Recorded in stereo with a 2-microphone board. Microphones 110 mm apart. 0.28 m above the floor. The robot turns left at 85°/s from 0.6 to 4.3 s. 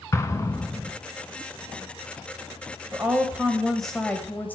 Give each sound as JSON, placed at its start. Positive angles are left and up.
{"t": 0.1, "sound": "an explosion", "side_deg": 30, "distance_m": 1.1}
{"t": 2.9, "sound": "a woman speaking", "side_deg": -25, "distance_m": 1.2}